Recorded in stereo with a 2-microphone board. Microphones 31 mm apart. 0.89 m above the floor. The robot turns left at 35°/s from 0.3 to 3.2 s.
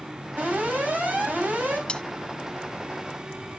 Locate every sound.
0.4 s an alarm: 65° right, 6.5 m; by 1.8 s 115° right, 6.5 m
1.9 s cutlery clinking: 35° left (ahead or behind), 0.5 m; by 2.0 s 30° left (ahead or behind), 0.5 m